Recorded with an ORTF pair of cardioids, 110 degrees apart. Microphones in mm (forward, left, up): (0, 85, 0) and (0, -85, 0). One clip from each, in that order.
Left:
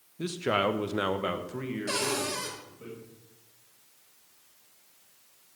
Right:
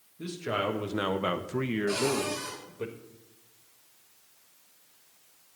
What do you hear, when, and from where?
0.2 s a man speaking: 40° left, 1.4 m; by 2.9 s 70° right, 1.8 m
1.9 s a cupboard door: 60° left, 3.5 m